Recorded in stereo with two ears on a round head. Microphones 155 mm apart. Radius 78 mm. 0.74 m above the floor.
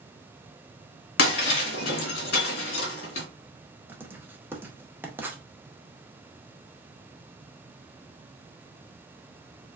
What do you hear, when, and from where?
1.2 s breaking glass: 60° left (ahead or behind), 1.6 m
3.9 s writing: 10° right (ahead or behind), 0.6 m